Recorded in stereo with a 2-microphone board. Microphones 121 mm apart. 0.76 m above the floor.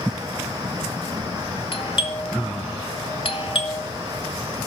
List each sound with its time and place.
1.7 s a doorbell: 50° left (ahead or behind), 2 m